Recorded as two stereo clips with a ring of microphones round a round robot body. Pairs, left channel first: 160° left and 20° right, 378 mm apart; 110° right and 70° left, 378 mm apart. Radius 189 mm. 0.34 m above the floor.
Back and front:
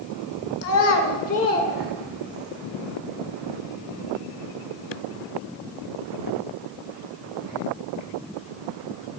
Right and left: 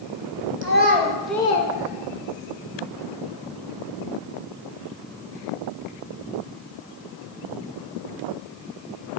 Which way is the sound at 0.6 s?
115° left.